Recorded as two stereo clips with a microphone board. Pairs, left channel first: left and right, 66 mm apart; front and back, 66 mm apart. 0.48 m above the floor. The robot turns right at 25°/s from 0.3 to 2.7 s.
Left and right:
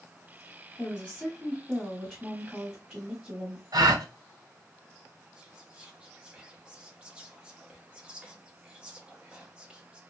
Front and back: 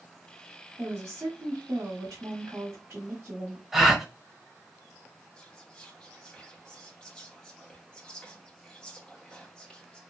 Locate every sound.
0.8 s a woman speaking: 160° left, 1.3 m; by 3.6 s 150° right, 1.3 m
3.7 s a gasp: 90° right, 0.7 m
5.4 s whispering: 50° right, 0.8 m